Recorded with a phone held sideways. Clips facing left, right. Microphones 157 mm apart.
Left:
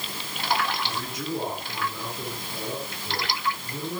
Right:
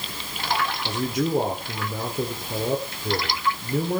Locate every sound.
0.8 s a man speaking: 60° right (ahead or behind), 3.5 m